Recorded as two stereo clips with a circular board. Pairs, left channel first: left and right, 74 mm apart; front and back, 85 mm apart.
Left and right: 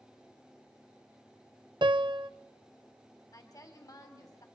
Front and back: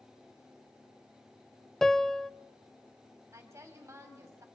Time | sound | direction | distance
1.8 | a piano | 85° right | 0.5 m
3.3 | a woman speaking | 125° left | 3 m